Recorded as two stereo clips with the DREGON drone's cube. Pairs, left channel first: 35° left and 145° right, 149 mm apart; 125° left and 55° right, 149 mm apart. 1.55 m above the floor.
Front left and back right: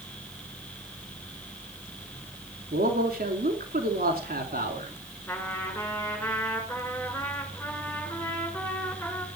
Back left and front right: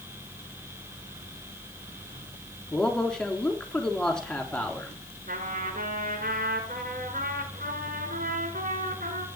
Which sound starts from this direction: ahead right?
A trumpet, at 5.3 s.